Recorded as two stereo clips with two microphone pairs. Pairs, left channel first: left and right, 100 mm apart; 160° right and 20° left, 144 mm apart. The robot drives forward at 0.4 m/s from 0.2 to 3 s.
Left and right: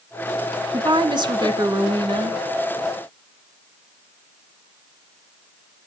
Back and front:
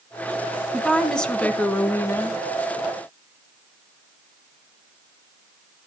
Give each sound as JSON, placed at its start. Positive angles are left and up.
{"t": 0.7, "sound": "a woman speaking", "azimuth_deg": -70, "distance_m": 1.8}